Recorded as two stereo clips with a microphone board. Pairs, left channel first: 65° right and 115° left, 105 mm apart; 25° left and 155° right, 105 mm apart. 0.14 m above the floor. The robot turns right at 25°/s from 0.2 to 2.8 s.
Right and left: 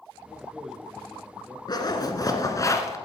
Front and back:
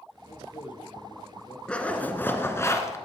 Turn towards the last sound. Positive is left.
turn(degrees=-25)